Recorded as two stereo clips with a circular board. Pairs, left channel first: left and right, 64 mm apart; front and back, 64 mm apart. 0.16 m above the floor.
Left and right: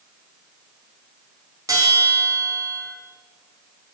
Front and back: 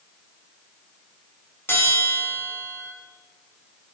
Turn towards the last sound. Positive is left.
turn(degrees=-55)